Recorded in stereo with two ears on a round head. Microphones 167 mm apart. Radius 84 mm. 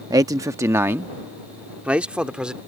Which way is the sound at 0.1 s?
20° right (ahead or behind).